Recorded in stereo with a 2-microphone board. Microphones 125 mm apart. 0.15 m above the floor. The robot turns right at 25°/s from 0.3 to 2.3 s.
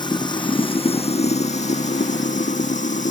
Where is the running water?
35° left; by 3.1 s 85° left.